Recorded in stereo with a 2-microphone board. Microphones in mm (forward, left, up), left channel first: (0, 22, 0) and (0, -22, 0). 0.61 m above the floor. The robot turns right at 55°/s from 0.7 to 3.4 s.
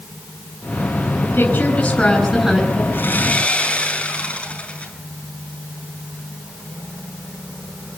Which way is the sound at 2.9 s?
55° left (ahead or behind).